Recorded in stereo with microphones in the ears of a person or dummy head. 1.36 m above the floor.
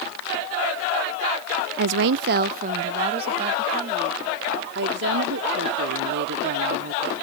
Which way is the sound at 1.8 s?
55° right (ahead or behind).